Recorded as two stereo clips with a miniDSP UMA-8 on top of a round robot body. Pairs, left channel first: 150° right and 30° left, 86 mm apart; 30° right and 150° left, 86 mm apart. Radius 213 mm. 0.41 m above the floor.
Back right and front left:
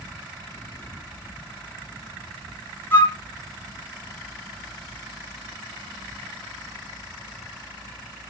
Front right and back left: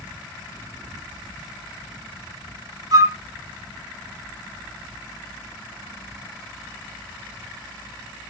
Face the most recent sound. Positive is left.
turn(degrees=155)